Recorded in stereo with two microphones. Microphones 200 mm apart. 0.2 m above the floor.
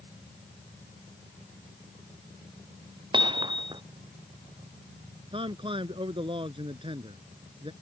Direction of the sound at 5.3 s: 25° right (ahead or behind).